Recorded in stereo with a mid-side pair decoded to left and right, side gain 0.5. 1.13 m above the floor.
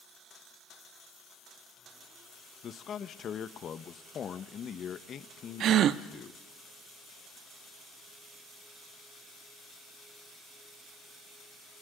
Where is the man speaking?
50° left, 1.2 m.